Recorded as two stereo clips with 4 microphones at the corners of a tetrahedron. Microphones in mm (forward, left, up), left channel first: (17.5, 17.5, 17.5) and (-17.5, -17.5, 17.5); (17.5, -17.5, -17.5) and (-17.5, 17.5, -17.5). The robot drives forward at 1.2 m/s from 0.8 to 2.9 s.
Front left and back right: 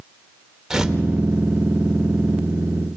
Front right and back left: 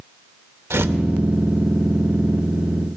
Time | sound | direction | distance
0.7 | tearing paper | 145° left | 0.9 m